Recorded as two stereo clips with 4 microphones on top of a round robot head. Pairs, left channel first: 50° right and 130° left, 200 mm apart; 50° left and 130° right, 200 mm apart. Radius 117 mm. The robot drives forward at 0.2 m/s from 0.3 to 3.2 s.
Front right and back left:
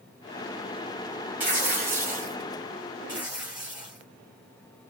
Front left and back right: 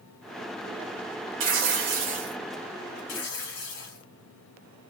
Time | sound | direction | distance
1.4 | tearing paper | 150° right | 1.1 m
3.1 | tearing paper | 45° left | 1.1 m